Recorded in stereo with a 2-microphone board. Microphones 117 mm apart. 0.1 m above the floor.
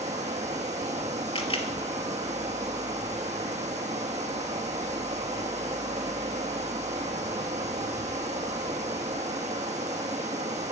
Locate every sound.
0.0 s running water: 80° right, 1.3 m
1.4 s a camera shutter: 50° left (ahead or behind), 1.1 m